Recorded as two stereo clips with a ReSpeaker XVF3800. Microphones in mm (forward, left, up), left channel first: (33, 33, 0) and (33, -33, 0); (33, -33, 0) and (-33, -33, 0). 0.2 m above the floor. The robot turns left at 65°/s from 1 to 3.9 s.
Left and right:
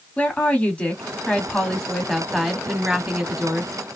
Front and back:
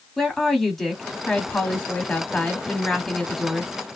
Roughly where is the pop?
I don't hear a pop.